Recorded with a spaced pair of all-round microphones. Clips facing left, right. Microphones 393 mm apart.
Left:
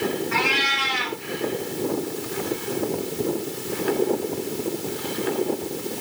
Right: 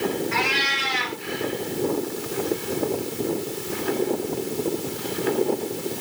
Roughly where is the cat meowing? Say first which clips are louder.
Left 1 dB; left.